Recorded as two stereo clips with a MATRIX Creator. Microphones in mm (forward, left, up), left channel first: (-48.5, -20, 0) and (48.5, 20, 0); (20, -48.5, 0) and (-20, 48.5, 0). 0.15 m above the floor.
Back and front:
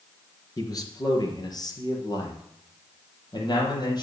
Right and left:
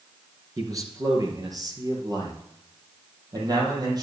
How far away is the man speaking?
About 2.5 m.